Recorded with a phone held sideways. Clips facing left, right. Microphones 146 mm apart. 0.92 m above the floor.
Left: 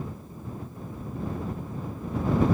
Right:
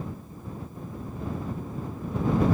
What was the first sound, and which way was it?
Only background noise.